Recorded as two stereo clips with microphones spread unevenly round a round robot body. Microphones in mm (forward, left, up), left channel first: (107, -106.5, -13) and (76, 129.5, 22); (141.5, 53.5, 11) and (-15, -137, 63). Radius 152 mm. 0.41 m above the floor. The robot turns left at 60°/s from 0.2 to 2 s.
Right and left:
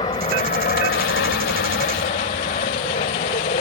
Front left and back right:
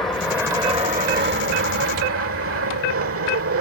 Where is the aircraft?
25° right; by 3.6 s 135° right.